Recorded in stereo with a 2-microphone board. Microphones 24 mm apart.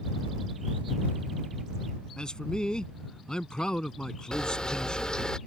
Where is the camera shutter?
35° left (ahead or behind).